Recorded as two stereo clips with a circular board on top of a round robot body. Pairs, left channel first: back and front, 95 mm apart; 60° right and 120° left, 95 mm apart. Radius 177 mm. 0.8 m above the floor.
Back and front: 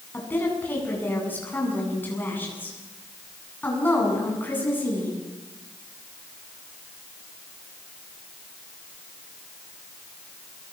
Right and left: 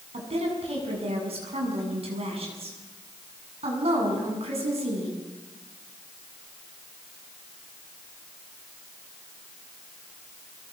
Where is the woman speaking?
110° left, 8 m.